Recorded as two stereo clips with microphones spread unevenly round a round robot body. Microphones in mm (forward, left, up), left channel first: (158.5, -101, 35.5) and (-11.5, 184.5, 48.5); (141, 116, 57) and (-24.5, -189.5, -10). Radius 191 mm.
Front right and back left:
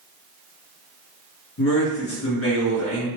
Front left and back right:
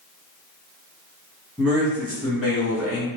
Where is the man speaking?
45° right, 1.6 m.